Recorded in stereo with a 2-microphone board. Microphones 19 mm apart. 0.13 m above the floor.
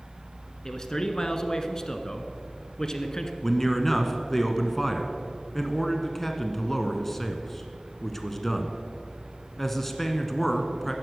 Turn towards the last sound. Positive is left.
turn(degrees=10)  # may be behind; listen again after turning